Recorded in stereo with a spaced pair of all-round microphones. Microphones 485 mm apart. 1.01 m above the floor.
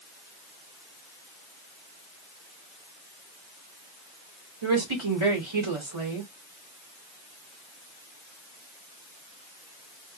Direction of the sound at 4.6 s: 85° right.